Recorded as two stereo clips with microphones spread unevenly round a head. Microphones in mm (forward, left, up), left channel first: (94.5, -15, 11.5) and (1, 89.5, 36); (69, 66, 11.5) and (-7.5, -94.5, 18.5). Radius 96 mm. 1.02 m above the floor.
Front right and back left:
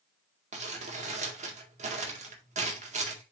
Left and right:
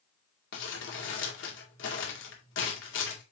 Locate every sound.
0.5 s crumpling: 95° left, 2 m